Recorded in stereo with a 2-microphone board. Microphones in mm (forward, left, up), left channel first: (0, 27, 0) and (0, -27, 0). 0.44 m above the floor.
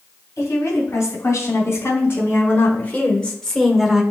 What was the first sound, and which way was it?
A woman speaking, 65° left (ahead or behind).